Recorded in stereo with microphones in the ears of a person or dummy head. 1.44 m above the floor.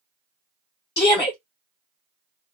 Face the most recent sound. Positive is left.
turn(degrees=20)  # may be behind; listen again after turning